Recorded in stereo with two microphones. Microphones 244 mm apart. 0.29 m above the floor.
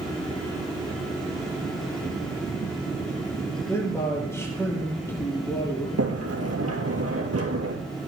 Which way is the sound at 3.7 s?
10° left (ahead or behind).